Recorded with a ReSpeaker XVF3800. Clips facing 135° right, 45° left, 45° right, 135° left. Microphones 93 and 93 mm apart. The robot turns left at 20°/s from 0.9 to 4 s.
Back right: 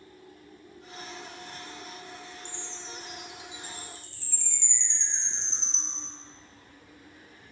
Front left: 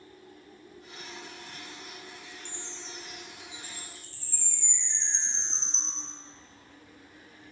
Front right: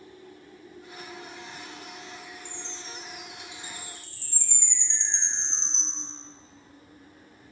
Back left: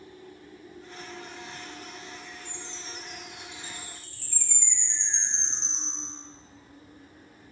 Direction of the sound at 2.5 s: 45° left.